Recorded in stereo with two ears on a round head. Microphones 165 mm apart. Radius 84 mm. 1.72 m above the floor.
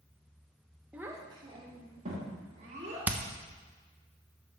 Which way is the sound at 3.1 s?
10° right (ahead or behind).